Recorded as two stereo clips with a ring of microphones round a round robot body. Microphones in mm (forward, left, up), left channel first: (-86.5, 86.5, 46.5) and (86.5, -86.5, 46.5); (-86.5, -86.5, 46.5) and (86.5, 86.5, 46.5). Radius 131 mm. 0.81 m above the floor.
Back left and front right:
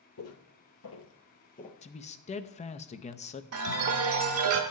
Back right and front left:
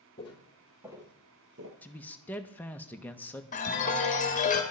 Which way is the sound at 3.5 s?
75° right.